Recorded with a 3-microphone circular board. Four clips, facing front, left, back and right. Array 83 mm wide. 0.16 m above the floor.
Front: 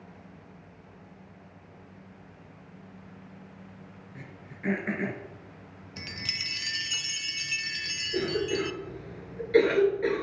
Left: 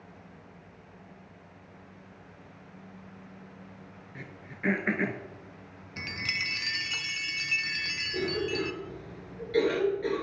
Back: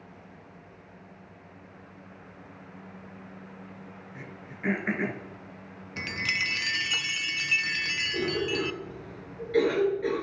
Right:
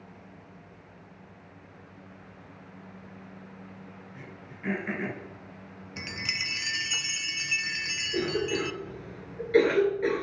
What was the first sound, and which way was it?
Throat clearing, 120° left.